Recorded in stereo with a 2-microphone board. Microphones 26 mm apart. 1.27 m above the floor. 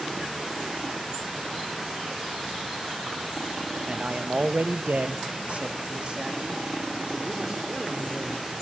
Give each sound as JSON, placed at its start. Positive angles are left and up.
{"t": 3.9, "sound": "a man speaking", "side_deg": -45, "distance_m": 1.9}